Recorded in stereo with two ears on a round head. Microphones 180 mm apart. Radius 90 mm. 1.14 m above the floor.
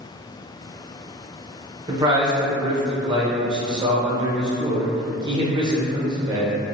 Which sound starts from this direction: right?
A man speaking, at 1.9 s.